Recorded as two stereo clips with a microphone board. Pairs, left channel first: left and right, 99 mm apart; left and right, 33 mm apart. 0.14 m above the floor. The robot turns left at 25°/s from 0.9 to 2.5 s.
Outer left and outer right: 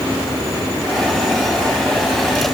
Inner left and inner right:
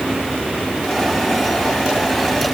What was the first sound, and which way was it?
Only background noise.